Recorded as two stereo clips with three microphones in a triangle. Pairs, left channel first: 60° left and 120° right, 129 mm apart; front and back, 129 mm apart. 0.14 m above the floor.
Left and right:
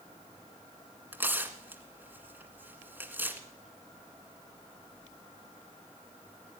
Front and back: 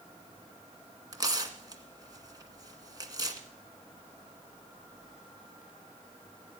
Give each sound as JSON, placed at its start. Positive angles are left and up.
{"t": 1.1, "sound": "tearing paper", "azimuth_deg": 180, "distance_m": 1.6}